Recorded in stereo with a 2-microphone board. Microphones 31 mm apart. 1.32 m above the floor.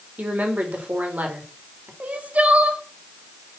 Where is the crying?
55° right (ahead or behind), 1.8 m.